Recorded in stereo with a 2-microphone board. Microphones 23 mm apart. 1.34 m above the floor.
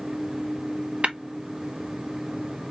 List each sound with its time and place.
1.0 s tapping: 55° right (ahead or behind), 0.8 m